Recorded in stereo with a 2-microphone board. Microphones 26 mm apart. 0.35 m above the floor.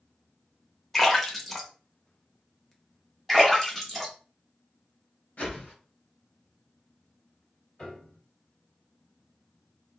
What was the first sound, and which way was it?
A splash, 5° left (ahead or behind).